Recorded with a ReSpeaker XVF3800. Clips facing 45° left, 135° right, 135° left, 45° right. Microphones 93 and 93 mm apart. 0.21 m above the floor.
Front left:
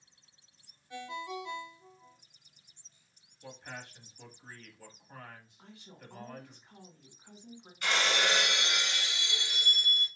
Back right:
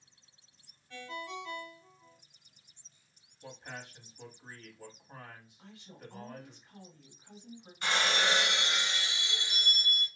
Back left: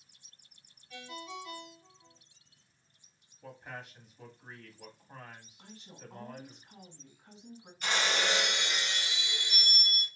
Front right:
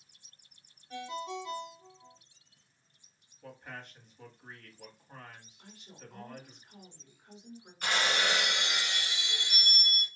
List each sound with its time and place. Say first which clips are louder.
0.9 s a ringtone: front left 2 dB, front right 6 dB; 20° right, 0.7 m
3.4 s a man speaking: even, back left 1 dB; 160° right, 1.2 m
5.6 s a woman speaking: back right 2 dB, back left 1 dB; 105° left, 2 m
7.8 s breaking glass: even, front right 1 dB; 75° right, 1.4 m